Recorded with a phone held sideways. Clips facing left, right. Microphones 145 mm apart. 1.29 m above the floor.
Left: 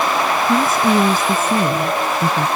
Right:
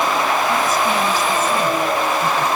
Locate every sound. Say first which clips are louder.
0.5 s a woman speaking: left 3 dB; 50° left (ahead or behind)